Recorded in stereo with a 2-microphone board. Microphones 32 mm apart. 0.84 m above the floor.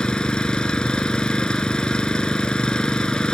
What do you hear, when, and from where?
0.0 s an engine running: 30° left (ahead or behind)